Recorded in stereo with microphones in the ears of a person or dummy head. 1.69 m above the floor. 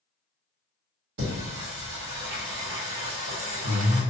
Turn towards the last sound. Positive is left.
turn(degrees=-60)  # may be behind; listen again after turning